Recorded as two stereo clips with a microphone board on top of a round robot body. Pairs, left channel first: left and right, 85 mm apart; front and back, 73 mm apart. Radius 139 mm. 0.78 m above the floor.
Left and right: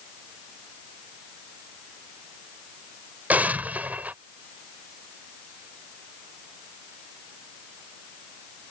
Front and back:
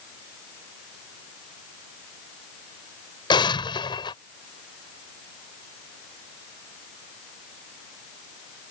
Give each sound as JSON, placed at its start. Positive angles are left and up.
{"t": 3.3, "sound": "an explosion", "azimuth_deg": -15}